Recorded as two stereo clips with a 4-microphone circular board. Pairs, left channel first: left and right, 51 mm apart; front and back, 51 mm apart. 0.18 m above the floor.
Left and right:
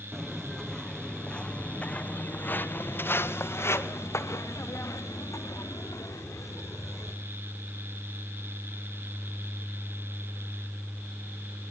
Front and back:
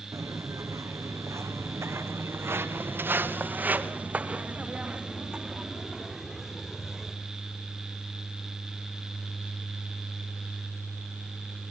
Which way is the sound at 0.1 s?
Straight behind.